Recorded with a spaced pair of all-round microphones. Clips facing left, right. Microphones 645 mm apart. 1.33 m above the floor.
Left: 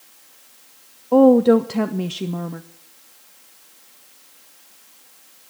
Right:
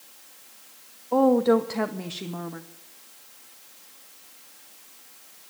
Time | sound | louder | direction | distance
1.1 | a woman speaking | left 7 dB | 55° left (ahead or behind) | 0.6 m